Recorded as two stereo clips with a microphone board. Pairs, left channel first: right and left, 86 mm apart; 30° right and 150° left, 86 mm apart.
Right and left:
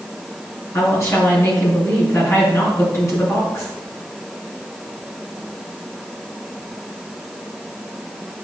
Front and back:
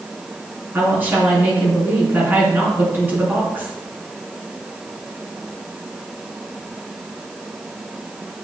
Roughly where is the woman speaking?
Behind right.